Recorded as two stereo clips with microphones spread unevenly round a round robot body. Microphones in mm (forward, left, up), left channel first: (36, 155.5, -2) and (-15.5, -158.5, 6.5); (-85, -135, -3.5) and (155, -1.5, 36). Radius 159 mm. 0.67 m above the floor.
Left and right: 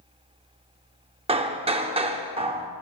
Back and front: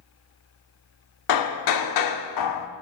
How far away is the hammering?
About 0.7 m.